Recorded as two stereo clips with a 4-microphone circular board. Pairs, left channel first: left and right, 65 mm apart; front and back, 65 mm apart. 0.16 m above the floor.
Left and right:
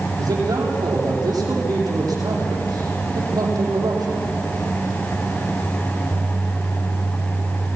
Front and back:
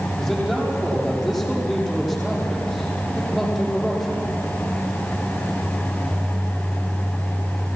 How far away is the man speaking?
About 7.5 m.